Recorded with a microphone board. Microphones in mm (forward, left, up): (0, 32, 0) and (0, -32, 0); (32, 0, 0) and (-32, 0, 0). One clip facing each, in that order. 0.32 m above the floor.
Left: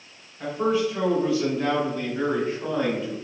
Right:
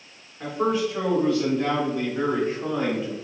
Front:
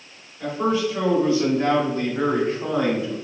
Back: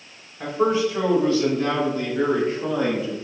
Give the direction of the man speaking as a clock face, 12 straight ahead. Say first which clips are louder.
Even, back 2 dB; 6 o'clock.